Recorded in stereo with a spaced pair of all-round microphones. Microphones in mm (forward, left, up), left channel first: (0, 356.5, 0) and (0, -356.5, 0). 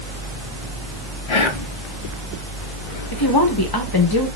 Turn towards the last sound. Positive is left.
turn(degrees=35)  # may be behind; listen again after turning